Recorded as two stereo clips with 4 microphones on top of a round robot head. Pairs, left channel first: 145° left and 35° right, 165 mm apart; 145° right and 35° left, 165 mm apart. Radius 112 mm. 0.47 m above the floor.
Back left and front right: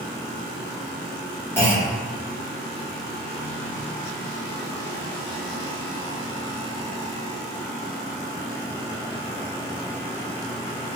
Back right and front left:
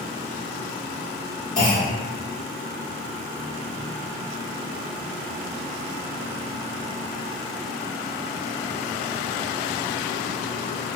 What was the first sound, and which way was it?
A clunk, 140° right.